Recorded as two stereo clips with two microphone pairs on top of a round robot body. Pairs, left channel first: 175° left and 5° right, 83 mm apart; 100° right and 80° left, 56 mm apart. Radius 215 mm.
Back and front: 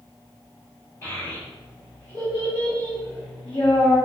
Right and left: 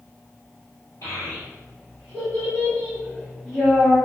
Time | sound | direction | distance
1.0 | a child speaking | 130° right | 1.2 m